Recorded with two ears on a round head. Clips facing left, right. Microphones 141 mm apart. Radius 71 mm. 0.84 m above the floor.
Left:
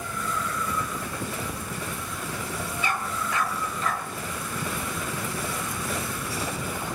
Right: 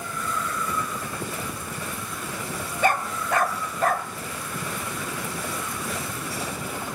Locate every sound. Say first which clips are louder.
2.8 s a dog barking: right 8 dB; 40° right (ahead or behind), 1.5 m